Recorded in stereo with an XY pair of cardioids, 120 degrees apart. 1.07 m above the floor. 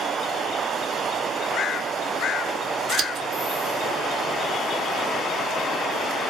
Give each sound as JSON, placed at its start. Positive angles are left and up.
{"t": 2.9, "sound": "scissors", "azimuth_deg": -55, "distance_m": 0.8}